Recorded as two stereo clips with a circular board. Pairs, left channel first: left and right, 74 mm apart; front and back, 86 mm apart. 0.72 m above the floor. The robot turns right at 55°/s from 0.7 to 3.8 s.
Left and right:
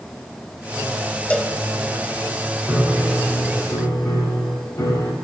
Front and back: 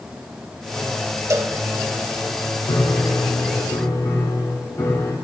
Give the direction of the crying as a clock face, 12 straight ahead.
I don't hear crying.